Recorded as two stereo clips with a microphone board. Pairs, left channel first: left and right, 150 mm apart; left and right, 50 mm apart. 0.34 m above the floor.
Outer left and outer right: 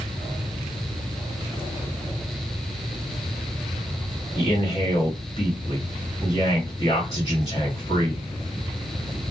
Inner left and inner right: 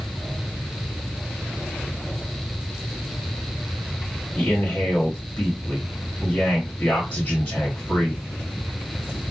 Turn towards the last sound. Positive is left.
turn(degrees=40)  # may be behind; listen again after turning